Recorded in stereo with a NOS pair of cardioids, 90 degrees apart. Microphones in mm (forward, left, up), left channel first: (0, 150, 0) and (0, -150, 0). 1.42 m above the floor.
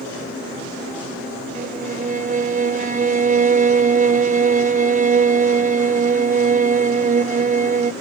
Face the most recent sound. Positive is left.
turn(degrees=-25)